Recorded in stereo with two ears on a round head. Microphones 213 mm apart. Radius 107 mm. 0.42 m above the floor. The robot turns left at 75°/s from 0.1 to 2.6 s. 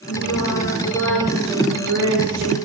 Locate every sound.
0.1 s singing: 80° left, 7.5 m; by 2.5 s 105° right, 7.5 m